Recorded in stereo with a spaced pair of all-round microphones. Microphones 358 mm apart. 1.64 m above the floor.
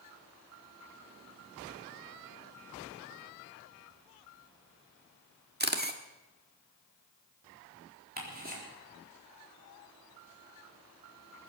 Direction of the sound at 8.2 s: 25° right (ahead or behind).